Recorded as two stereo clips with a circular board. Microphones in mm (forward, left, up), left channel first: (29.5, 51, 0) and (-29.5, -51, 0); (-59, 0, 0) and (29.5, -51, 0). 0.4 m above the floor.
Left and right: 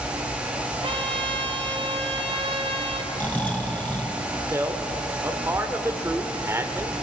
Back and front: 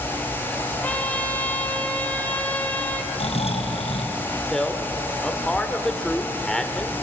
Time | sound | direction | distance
0.8 | a trumpet | 135° right | 1.7 m
3.1 | snoring | 135° left | 2.5 m
4.5 | a man speaking | 135° right | 1.3 m